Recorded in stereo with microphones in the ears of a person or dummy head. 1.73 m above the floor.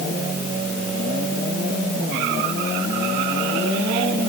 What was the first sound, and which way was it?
Only background noise.